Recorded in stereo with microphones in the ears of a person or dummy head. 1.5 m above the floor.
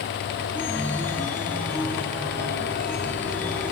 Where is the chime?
10° left (ahead or behind), 1.4 m.